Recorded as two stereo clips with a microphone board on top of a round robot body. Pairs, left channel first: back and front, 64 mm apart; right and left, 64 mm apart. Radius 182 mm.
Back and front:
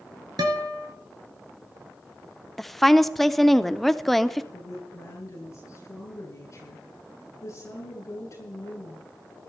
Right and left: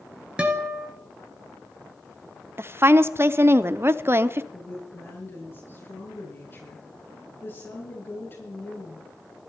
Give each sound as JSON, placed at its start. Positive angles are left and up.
{"t": 0.4, "sound": "a guitar", "azimuth_deg": 15, "distance_m": 2.0}
{"t": 2.6, "sound": "a woman speaking", "azimuth_deg": 95, "distance_m": 0.9}
{"t": 4.5, "sound": "a woman speaking", "azimuth_deg": -140, "distance_m": 9.5}